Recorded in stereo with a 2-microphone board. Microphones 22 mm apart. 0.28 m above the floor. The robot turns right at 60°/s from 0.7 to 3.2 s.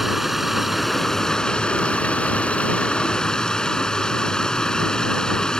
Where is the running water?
10° right; by 5.6 s 140° left.